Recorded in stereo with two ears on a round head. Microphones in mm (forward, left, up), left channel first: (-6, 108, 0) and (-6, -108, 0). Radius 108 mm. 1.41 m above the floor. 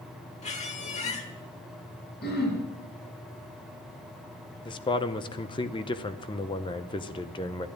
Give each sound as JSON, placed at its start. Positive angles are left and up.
{"t": 0.4, "sound": "a squeak", "side_deg": 30, "distance_m": 1.3}
{"t": 2.2, "sound": "throat clearing", "side_deg": 45, "distance_m": 4.5}
{"t": 4.7, "sound": "a man speaking", "side_deg": 20, "distance_m": 0.7}